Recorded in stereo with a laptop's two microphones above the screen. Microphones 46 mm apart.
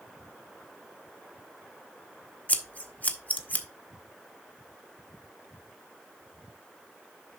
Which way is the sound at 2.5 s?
35° left (ahead or behind).